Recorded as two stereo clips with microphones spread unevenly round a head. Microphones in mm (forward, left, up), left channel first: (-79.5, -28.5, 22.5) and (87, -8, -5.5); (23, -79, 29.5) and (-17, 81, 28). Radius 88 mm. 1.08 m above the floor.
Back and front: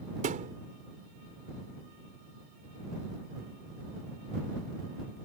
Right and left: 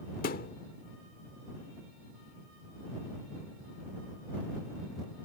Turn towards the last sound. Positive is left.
turn(degrees=-40)